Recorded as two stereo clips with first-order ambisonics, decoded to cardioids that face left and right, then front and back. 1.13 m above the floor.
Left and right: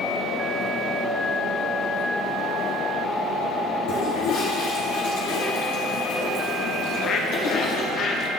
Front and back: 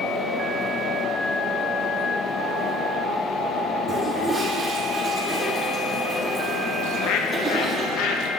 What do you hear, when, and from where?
3.9 s a toilet flushing: 95° left, 2.5 m
6.8 s a bird: 35° left, 0.8 m